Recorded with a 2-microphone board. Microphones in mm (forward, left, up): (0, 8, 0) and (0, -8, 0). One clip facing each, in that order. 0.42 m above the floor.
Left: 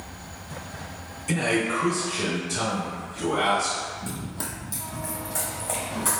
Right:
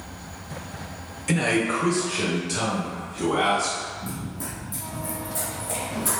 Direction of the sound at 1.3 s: 30° right (ahead or behind).